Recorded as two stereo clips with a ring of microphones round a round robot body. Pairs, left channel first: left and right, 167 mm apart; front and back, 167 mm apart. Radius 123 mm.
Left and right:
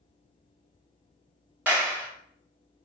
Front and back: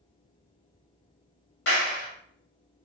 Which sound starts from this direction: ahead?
A clap, at 1.7 s.